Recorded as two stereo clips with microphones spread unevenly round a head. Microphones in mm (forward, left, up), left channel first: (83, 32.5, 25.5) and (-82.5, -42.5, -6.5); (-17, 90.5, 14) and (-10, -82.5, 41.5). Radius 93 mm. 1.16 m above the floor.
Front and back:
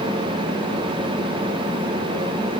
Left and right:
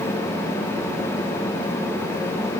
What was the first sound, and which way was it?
Only background noise.